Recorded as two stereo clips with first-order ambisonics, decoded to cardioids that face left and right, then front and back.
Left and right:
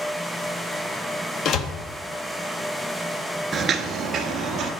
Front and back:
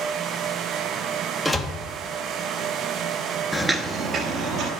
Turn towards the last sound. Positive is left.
turn(degrees=-150)